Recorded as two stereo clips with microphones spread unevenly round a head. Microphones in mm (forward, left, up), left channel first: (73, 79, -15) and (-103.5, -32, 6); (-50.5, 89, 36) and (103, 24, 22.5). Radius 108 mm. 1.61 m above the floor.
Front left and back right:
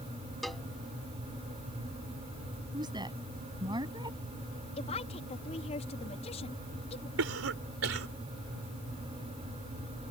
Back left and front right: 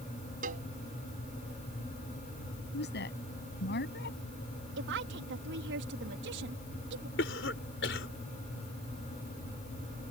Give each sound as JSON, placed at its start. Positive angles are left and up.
{"t": 0.4, "sound": "a cowbell", "azimuth_deg": -65}
{"t": 2.7, "sound": "a woman speaking", "azimuth_deg": 140}
{"t": 4.8, "sound": "a woman speaking", "azimuth_deg": -30}
{"t": 7.2, "sound": "a cough", "azimuth_deg": -165}